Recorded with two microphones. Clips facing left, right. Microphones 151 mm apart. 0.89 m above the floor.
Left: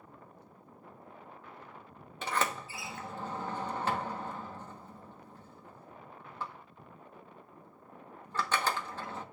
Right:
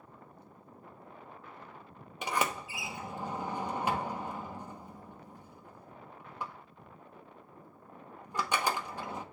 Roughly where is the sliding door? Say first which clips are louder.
Right 1 dB; centre.